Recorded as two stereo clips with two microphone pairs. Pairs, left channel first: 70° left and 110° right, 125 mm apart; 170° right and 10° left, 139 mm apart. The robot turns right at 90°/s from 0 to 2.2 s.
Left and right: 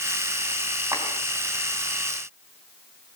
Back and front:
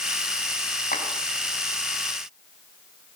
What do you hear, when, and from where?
0.9 s a clap: 175° right, 4.5 m; by 1.1 s 160° right, 4.5 m